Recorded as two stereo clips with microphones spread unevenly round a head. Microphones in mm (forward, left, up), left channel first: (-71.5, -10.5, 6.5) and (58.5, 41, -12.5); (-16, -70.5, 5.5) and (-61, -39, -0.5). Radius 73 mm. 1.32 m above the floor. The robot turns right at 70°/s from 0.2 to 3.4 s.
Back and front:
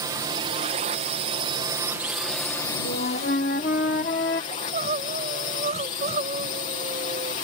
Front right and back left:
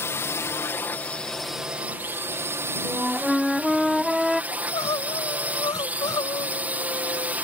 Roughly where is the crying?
Ahead right.